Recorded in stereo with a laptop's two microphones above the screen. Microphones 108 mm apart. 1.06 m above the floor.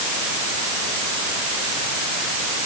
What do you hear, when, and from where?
Only background noise.